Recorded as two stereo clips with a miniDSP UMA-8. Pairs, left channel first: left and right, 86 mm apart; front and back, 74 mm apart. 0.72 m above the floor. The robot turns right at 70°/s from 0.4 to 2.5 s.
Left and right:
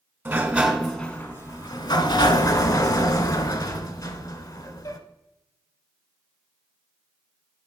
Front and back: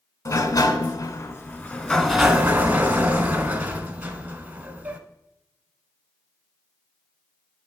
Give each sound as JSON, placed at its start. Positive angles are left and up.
{"t": 0.2, "sound": "a sliding door", "azimuth_deg": -30, "distance_m": 0.9}